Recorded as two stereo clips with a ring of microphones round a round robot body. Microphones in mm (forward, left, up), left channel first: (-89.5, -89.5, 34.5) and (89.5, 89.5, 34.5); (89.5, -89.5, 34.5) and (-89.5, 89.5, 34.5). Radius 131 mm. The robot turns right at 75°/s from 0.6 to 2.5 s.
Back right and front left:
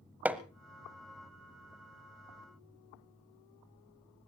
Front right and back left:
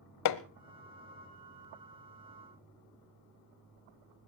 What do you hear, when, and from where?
0.2 s hammering: 40° right, 1.0 m